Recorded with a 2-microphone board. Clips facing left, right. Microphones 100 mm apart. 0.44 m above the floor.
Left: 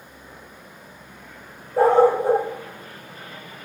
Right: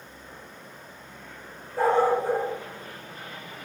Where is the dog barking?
65° left (ahead or behind), 5 m.